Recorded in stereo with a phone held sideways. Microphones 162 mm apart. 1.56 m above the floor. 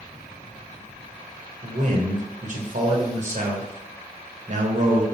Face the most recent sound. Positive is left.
turn(degrees=-55)  # may be behind; listen again after turning